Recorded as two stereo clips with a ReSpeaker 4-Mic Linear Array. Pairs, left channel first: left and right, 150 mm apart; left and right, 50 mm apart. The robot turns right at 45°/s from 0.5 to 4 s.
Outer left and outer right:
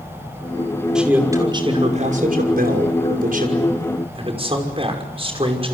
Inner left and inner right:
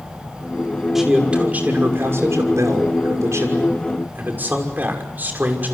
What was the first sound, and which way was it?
A man speaking, 175° right.